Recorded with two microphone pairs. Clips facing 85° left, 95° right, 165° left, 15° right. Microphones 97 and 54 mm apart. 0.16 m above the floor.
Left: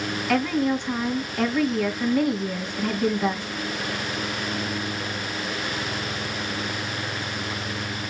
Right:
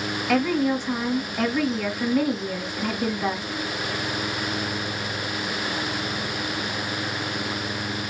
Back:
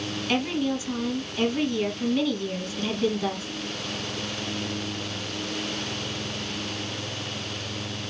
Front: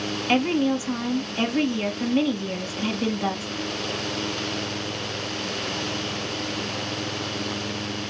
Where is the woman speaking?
5° right, 1.0 m.